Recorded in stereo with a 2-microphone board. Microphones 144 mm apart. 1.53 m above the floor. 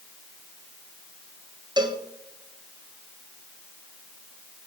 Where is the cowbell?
30° right (ahead or behind), 1.5 m.